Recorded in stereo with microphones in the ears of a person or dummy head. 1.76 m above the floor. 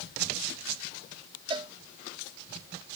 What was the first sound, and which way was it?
A cowbell, 25° right (ahead or behind).